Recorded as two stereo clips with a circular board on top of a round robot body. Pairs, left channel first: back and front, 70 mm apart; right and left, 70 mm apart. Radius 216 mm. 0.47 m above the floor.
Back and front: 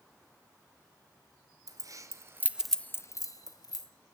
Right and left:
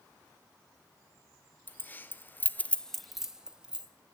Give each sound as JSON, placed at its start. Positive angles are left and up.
{"t": 1.7, "sound": "keys jangling", "azimuth_deg": -25, "distance_m": 1.1}